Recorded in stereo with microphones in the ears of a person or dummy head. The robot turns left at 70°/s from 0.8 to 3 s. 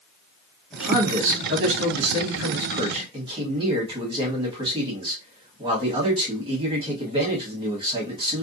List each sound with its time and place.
0.7 s a man speaking: straight ahead, 1.4 m; by 8.4 s 155° right, 1.4 m